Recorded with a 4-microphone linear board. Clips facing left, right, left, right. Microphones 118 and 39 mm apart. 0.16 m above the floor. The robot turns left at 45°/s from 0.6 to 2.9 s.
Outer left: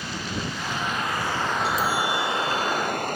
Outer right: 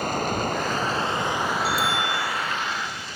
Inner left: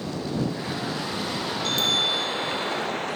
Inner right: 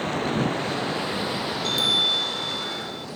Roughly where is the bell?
Ahead.